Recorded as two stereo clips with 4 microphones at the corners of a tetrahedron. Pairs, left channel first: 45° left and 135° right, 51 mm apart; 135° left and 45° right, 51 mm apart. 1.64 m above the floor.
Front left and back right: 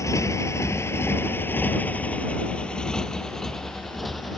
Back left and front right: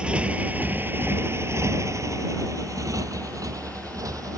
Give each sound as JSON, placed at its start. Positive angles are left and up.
{"t": 0.0, "sound": "a motorcycle", "azimuth_deg": 25}